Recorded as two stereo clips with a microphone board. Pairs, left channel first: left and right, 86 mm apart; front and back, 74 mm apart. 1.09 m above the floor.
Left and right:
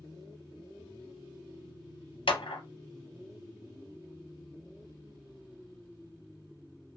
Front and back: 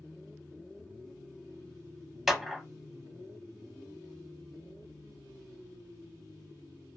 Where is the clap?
95° left, 0.6 m.